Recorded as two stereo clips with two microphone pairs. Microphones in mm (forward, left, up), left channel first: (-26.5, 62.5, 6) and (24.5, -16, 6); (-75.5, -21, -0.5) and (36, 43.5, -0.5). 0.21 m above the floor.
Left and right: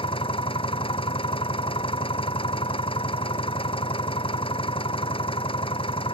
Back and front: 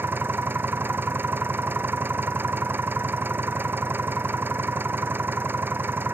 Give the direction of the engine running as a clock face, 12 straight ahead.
9 o'clock.